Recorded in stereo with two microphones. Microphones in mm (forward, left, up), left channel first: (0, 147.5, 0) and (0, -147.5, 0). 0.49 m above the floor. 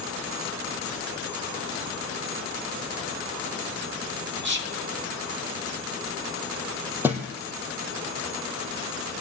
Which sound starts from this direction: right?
Whispering, at 4.4 s.